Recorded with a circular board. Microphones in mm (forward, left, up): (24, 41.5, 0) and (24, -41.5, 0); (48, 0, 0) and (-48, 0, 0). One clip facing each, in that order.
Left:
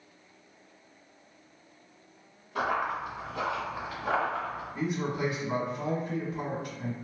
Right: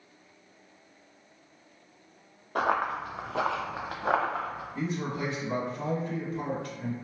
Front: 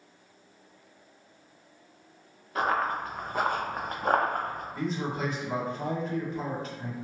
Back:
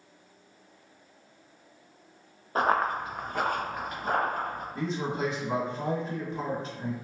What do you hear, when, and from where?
2.5 s running footsteps: 130° right, 1.0 m; by 4.7 s 25° right, 1.4 m
4.8 s a man speaking: 150° left, 1.7 m